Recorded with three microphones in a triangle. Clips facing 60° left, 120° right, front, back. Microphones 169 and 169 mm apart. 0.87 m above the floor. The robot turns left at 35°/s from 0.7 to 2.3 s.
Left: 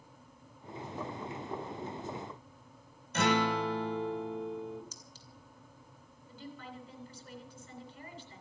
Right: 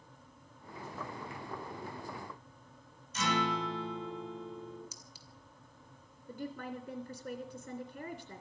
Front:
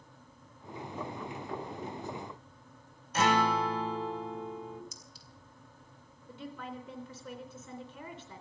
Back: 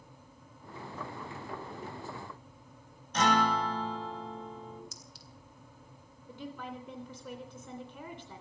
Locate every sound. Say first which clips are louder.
3.1 s a guitar: left 4 dB, even; 85° left, 3 m
4.9 s a clink: left 1 dB, back 1 dB; 160° left, 2.5 m
6.3 s a woman speaking: right 6 dB, back 1 dB; 100° right, 3 m